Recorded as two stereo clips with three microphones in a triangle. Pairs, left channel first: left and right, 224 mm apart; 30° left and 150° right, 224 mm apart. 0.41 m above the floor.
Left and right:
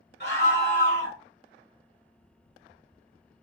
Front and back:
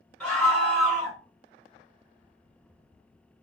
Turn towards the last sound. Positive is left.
turn(degrees=115)